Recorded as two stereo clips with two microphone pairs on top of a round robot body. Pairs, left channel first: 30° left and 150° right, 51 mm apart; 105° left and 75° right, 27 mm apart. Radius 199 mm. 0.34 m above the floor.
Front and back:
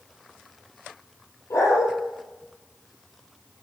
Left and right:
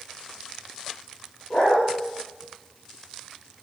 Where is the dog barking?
50° left, 8 m.